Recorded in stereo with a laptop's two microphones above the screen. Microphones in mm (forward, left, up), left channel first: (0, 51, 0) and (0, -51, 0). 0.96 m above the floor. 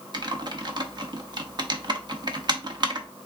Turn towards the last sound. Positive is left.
turn(degrees=-45)  # may be behind; listen again after turning